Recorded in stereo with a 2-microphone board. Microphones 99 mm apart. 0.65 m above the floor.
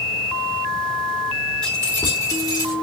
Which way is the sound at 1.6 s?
10° left (ahead or behind).